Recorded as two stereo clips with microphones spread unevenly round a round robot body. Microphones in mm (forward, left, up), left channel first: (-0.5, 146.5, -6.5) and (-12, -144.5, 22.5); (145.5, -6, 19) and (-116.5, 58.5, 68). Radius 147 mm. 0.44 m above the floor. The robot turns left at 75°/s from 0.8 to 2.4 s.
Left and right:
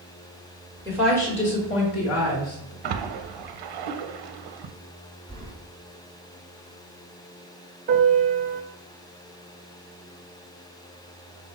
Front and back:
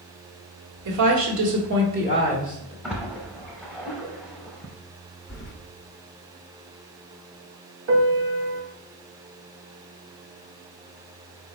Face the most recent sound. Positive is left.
turn(degrees=-155)